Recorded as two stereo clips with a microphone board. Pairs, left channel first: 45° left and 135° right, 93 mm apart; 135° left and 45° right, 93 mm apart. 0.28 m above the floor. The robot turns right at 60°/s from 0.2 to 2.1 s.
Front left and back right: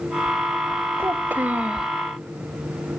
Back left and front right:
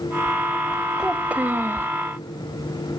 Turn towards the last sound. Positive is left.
turn(degrees=-50)